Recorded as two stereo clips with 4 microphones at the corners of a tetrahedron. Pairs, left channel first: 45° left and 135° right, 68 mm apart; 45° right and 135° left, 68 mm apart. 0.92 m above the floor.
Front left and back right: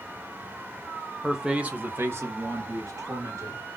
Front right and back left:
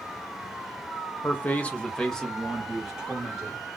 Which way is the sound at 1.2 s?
55° right.